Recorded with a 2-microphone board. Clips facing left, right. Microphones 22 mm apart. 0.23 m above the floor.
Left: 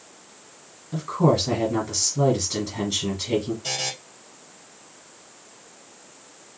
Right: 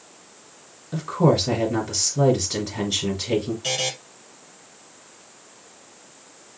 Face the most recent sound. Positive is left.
turn(degrees=-45)  # may be behind; listen again after turning